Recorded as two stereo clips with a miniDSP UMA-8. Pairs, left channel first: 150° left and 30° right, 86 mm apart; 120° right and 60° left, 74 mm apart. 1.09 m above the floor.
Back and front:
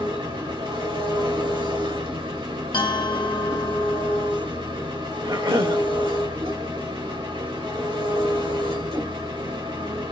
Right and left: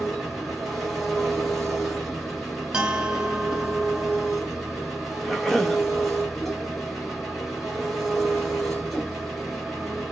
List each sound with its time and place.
0.0 s an engine running: 30° right, 2 m
2.7 s a bell: 140° left, 1.2 m
5.2 s a cough: 35° right, 1.7 m